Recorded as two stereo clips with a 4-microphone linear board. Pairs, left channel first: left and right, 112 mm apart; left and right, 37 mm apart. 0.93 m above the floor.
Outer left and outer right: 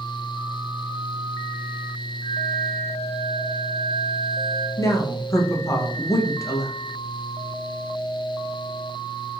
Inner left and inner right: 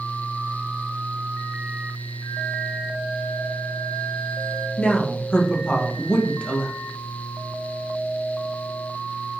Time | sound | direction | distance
2.2 | a flute | 20° left (ahead or behind) | 2.5 m
4.8 | a woman speaking | 30° left (ahead or behind) | 0.9 m